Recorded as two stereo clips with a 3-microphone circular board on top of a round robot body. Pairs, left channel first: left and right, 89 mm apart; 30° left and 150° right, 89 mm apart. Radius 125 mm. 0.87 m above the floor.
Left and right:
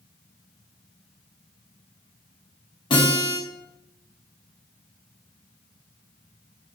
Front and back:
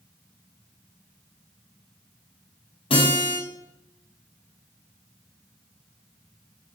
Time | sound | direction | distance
2.9 | a guitar | 50° left | 4.5 m